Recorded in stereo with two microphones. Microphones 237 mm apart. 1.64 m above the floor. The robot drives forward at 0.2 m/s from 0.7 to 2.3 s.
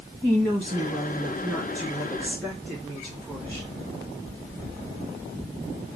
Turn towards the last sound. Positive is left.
turn(degrees=-10)  # may be behind; listen again after turning